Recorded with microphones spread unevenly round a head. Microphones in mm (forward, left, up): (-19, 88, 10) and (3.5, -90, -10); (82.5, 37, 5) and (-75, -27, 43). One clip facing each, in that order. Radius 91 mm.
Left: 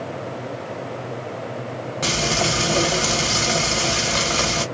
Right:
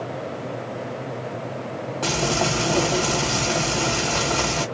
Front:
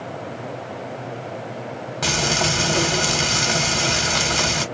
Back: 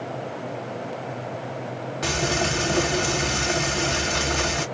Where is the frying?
30° left, 1.7 m.